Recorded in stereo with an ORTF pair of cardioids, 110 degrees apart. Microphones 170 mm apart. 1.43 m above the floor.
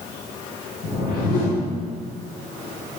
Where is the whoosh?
65° left, 1.7 m.